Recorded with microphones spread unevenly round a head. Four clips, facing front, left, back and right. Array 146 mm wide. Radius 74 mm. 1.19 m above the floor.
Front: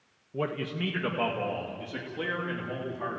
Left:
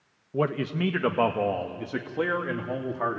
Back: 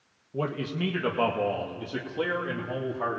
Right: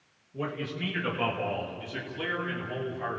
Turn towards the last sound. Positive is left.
turn(degrees=110)